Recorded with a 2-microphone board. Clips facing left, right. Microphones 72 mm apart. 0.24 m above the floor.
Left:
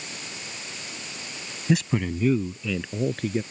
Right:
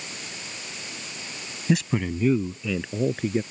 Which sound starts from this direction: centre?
A man speaking, at 1.7 s.